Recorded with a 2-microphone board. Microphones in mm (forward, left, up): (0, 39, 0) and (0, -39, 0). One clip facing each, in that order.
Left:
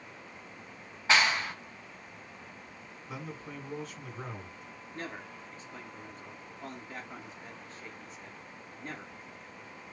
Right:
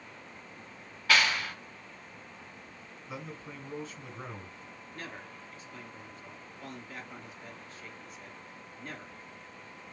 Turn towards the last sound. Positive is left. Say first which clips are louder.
# left 3 dB
turn(degrees=35)  # may be behind; listen again after turning